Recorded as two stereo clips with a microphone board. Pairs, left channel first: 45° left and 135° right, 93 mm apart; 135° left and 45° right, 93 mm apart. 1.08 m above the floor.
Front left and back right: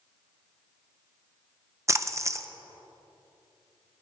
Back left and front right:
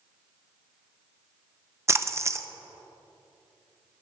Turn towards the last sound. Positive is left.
turn(degrees=-90)